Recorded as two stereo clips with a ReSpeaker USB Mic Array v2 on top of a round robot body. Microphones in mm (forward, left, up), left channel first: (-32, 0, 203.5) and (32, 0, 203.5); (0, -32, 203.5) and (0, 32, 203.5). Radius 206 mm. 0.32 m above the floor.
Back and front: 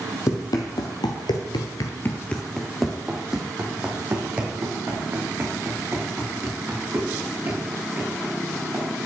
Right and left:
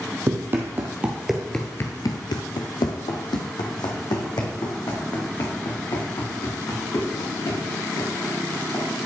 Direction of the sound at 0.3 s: 145° left.